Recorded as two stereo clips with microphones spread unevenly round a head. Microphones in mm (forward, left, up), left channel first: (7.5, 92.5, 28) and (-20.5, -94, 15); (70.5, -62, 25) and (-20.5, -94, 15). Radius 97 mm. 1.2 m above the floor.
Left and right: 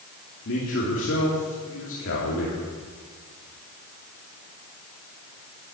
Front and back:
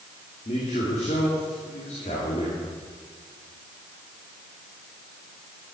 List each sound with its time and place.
0.5 s a man speaking: 55° left, 3 m